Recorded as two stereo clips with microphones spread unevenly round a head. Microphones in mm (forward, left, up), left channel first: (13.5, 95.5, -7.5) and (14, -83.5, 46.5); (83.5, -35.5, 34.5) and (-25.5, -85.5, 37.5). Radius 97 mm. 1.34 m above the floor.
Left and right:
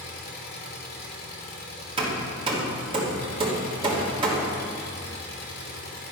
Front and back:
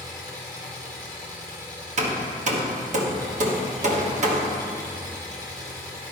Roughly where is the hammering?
Behind right.